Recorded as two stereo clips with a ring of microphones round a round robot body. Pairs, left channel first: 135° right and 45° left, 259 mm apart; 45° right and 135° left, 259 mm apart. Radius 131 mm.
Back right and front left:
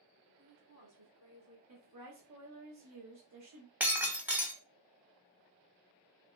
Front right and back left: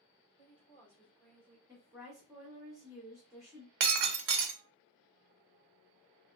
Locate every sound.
0.4 s a woman speaking: 40° left, 2.5 m
1.7 s a woman speaking: 55° left, 1.3 m
3.8 s breaking glass: 130° left, 0.7 m